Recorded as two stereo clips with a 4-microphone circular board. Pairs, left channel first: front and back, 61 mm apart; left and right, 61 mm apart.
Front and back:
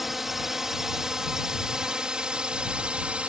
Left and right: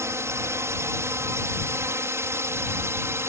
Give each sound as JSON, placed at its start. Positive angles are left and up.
{"t": 0.0, "sound": "a drone", "azimuth_deg": -95}